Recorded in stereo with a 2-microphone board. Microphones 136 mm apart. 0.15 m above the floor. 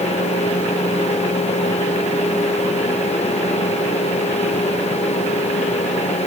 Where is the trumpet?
No trumpet in this recording.